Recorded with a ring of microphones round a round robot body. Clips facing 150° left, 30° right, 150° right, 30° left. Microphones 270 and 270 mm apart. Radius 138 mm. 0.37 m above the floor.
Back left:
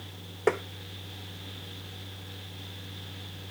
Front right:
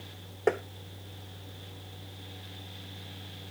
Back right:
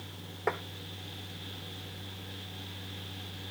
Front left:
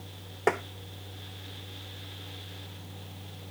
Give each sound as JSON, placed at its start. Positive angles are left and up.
{"t": 0.5, "sound": "tapping", "azimuth_deg": 70}